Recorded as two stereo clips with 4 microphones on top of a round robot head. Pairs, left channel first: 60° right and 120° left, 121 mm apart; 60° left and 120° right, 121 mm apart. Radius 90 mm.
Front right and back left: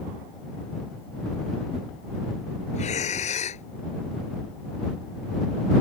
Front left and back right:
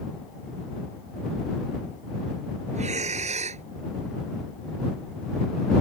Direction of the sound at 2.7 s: 90° right.